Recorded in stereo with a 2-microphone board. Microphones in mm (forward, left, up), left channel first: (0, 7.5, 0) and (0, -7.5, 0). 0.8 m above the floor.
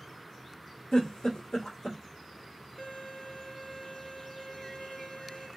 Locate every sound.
0.9 s a giggle: 65° left (ahead or behind), 1.8 m
2.8 s a violin: 45° left (ahead or behind), 1.3 m